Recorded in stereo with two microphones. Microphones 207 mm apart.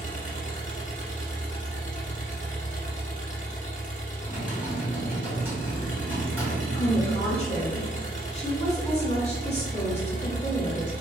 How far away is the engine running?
About 1.1 m.